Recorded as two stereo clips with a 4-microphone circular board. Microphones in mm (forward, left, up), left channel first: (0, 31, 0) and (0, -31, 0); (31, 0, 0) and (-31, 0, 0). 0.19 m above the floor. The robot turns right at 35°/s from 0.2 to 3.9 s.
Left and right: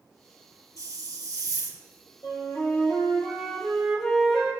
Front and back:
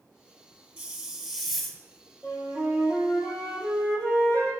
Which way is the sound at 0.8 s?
120° right.